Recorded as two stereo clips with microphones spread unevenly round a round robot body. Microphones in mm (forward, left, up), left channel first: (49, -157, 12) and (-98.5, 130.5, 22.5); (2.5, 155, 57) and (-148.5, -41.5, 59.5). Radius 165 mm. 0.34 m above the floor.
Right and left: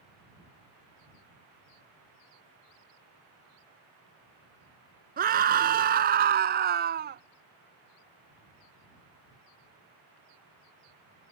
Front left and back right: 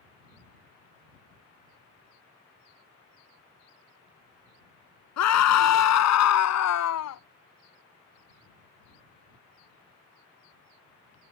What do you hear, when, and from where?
5.2 s a scream: 50° left; by 7.2 s 55° left